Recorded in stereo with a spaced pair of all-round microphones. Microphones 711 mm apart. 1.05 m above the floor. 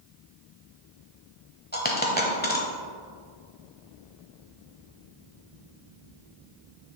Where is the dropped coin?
15° left (ahead or behind), 0.9 m.